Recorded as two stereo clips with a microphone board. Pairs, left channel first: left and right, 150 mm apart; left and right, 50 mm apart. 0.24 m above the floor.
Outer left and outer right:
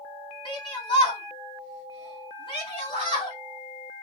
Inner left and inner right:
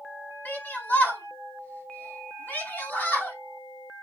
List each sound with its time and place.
0.5 s a shout: 35° left (ahead or behind), 2 m